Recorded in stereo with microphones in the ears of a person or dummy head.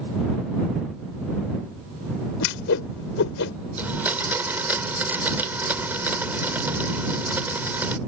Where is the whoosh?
65° left (ahead or behind).